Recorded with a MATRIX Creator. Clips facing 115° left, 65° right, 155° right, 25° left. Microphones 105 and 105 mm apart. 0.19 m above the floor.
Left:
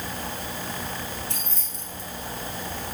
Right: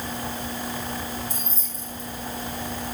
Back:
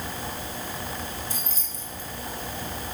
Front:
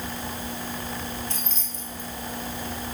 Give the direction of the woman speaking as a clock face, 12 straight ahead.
No woman speaking in this recording.